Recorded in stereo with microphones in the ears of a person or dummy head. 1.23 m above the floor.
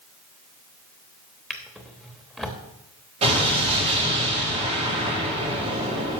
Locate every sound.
1.5 s a drawer: centre (ahead or behind), 0.8 m
3.2 s an explosion: 35° right (ahead or behind), 4 m